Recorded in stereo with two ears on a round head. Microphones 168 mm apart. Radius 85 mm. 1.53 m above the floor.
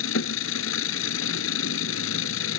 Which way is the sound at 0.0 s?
80° left.